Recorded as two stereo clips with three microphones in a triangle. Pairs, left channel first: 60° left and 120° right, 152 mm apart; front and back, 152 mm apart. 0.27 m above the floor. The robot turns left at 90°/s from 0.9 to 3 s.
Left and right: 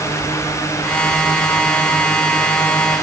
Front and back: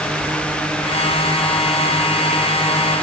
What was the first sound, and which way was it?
Only background noise.